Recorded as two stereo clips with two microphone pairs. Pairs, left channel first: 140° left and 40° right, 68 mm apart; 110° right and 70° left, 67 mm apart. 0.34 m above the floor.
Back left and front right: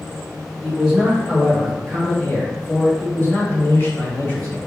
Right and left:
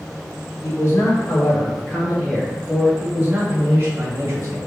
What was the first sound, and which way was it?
A man speaking, 130° right.